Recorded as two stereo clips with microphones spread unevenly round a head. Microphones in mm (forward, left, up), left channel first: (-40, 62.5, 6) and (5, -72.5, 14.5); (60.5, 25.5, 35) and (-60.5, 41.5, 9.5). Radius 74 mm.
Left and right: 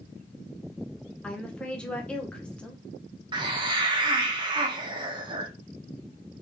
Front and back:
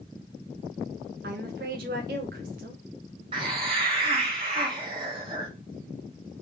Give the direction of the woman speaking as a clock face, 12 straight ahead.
6 o'clock.